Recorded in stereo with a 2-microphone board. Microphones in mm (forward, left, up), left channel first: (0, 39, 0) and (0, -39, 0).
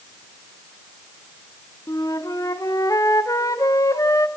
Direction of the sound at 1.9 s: 45° left (ahead or behind).